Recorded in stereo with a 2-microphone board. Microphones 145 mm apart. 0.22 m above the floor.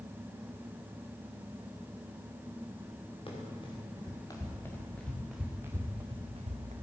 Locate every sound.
3.3 s running footsteps: 35° left (ahead or behind), 4.5 m; by 6.7 s 55° right (ahead or behind), 2.5 m